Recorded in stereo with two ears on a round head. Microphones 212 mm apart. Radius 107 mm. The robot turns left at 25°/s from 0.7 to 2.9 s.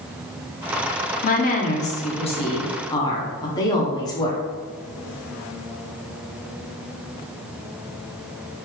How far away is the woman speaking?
About 0.6 m.